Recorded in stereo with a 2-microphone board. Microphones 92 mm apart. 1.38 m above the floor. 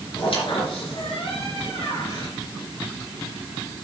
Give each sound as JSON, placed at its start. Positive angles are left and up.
{"t": 0.2, "sound": "a squeak", "side_deg": 70, "distance_m": 3.5}